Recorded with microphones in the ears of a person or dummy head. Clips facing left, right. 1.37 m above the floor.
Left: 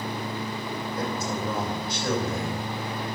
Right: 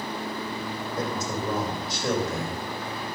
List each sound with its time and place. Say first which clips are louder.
1.0 s a man speaking: right 1 dB; 35° right (ahead or behind), 7 m